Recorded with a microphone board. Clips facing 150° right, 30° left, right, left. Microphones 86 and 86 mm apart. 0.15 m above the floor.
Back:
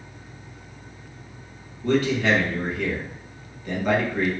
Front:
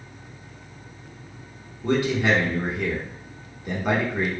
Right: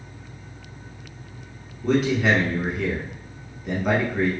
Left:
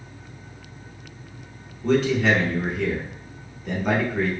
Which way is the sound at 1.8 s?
15° right.